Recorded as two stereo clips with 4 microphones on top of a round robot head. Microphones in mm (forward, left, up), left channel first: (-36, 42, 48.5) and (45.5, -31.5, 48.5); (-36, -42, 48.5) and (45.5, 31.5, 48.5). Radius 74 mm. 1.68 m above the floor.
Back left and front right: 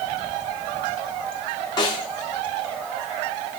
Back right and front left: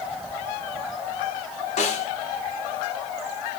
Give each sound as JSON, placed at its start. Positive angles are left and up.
{"t": 1.8, "sound": "a snare drum", "azimuth_deg": -170, "distance_m": 3.5}